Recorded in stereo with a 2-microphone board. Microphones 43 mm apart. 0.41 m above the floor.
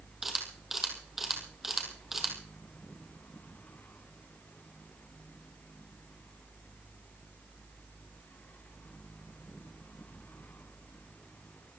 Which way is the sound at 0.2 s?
5° right (ahead or behind).